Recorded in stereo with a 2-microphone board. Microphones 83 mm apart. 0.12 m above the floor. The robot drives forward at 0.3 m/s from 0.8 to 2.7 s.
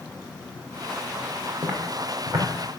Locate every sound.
1.6 s footsteps: 50° right (ahead or behind), 2.5 m; by 2.5 s 55° right (ahead or behind), 2.5 m